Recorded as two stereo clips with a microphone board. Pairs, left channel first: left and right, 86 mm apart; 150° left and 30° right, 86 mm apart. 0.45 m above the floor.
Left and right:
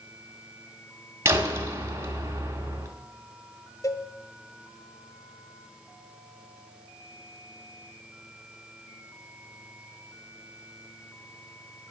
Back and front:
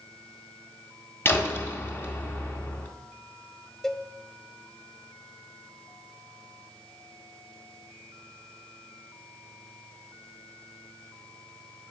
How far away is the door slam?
About 2 m.